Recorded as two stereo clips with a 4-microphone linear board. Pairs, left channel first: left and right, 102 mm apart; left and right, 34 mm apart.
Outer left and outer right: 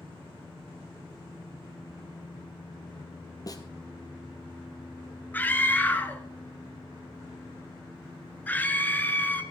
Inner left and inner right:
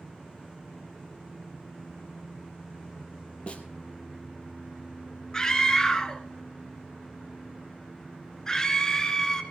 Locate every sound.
3.5 s a snare drum: 40° left (ahead or behind), 1.9 m
5.3 s a scream: 20° left (ahead or behind), 1.3 m